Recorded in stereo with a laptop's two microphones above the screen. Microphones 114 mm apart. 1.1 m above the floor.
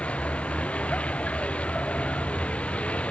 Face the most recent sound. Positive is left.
turn(degrees=10)  # may be behind; listen again after turning